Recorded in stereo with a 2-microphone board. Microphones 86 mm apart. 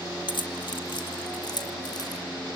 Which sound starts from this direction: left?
Keys jangling, at 0.3 s.